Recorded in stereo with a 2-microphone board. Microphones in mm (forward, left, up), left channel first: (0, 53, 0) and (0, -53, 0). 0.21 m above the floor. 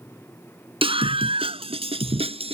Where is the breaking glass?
No breaking glass in this recording.